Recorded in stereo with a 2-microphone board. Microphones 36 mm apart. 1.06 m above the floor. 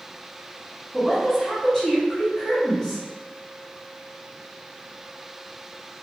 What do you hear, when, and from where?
0.9 s a woman speaking: 15° left (ahead or behind), 1.1 m